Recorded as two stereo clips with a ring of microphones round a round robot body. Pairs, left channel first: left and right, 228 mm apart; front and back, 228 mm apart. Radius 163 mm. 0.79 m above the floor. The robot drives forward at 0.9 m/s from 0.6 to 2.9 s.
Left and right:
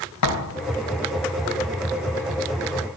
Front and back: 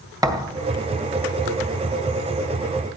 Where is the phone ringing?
No phone ringing in this recording.